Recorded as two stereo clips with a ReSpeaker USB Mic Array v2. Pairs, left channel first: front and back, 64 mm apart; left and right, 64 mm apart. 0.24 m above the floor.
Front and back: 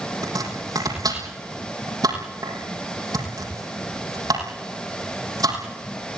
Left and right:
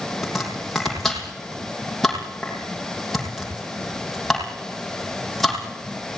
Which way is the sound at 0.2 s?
Straight behind.